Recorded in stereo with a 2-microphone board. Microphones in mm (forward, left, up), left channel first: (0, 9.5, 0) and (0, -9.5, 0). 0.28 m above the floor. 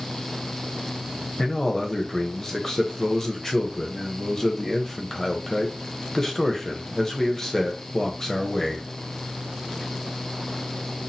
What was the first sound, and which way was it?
A man speaking, 20° left (ahead or behind).